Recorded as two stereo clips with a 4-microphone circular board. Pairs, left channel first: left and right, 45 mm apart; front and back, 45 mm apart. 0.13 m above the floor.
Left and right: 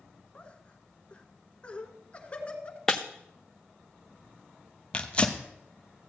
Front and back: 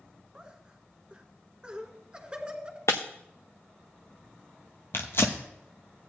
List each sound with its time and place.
0.3 s laughter: 125° left, 1.5 m
2.9 s breaking glass: 10° left, 1.0 m
4.9 s tearing paper: 25° left, 1.1 m